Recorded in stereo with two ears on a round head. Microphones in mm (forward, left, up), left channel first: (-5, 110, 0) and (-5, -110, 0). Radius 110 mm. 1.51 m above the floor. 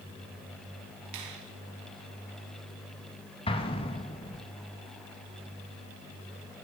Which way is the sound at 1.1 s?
85° right.